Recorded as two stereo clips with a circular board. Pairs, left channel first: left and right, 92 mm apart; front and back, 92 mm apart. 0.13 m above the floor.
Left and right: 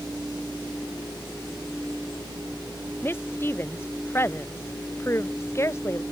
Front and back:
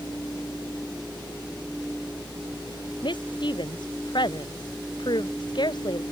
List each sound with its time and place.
3.0 s a woman speaking: 25° left; by 6.0 s 30° left